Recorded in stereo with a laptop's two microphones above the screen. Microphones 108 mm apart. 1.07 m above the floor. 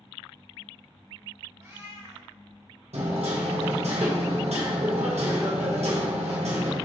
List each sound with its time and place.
1.6 s a cat meowing: 35° right (ahead or behind), 1.8 m
2.9 s hammering: 80° right, 1.0 m